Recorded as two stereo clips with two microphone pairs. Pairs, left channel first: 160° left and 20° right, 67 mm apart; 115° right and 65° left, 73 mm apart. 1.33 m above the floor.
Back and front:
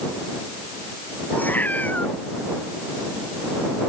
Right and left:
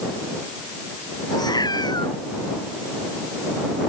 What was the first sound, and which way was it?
A cat meowing, 135° right.